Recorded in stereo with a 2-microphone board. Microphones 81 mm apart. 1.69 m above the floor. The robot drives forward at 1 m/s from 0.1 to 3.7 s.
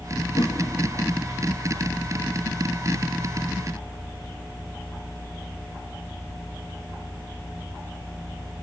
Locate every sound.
0.3 s a whoosh: 60° left (ahead or behind), 3 m; by 0.6 s 65° left (ahead or behind), 3 m